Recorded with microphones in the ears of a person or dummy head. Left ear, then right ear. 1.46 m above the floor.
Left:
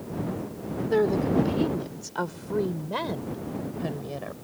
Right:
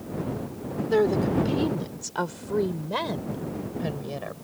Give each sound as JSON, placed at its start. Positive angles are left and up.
{"t": 0.8, "sound": "a woman speaking", "side_deg": -10}